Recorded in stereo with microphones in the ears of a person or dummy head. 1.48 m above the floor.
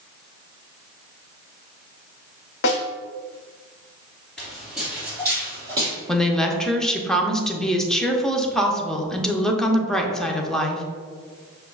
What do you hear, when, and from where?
2.6 s a snare drum: 55° left (ahead or behind), 0.6 m
4.4 s footsteps: 5° left (ahead or behind), 1.7 m; by 6.0 s 25° right (ahead or behind), 3 m
6.1 s a woman speaking: 5° left (ahead or behind), 0.5 m